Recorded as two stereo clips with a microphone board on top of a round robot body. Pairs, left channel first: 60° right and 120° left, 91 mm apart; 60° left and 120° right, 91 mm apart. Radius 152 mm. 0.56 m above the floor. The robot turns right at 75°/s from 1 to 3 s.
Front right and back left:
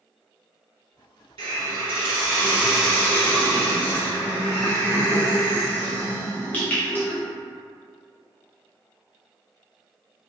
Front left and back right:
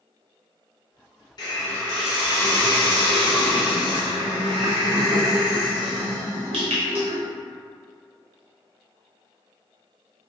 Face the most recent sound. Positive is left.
turn(degrees=-135)